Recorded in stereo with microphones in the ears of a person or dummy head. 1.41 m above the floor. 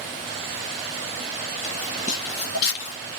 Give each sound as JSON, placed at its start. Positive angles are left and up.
{"t": 1.6, "sound": "footsteps", "side_deg": 25, "distance_m": 1.6}